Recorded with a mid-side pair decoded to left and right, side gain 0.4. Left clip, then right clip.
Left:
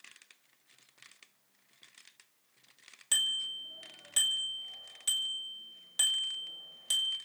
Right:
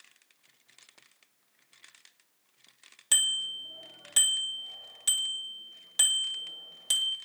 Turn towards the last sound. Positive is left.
turn(degrees=-35)